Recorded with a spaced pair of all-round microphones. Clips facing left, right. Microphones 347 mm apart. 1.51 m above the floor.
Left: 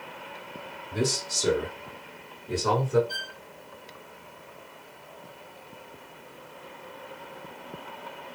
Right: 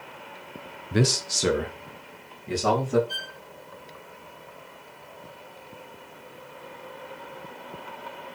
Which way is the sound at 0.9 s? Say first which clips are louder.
Right 4 dB; 80° right.